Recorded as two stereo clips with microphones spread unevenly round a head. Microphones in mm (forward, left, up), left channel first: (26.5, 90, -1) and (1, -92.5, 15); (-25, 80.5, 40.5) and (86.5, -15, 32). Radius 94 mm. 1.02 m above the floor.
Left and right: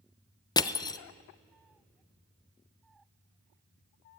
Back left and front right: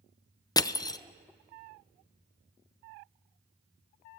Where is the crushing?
100° left, 0.8 m.